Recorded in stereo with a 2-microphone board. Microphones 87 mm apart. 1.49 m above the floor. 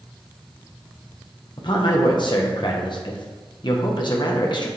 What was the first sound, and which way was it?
A man speaking, 60° left (ahead or behind).